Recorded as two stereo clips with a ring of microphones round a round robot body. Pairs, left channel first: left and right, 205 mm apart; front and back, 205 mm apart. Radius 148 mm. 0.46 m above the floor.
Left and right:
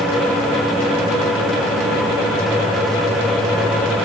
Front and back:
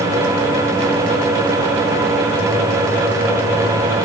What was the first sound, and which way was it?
Only background noise.